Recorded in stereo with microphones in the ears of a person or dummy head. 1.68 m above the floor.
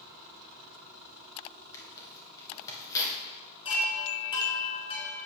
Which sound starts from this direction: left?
A chime, at 3.6 s.